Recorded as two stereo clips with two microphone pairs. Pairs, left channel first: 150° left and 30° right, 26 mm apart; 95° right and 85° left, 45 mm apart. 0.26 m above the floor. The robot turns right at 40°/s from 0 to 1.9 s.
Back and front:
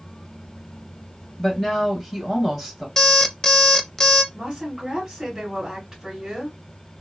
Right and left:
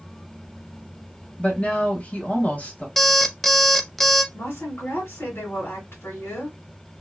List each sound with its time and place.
1.4 s a woman speaking: 140° right, 1.7 m; by 2.9 s 120° right, 1.7 m
3.0 s an alarm clock: straight behind, 0.5 m
4.3 s a woman speaking: 95° right, 1.7 m